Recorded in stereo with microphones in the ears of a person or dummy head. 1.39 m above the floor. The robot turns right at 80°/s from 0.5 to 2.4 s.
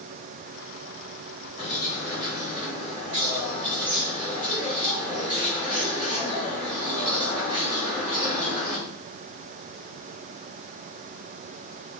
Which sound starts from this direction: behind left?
A bird, at 1.6 s.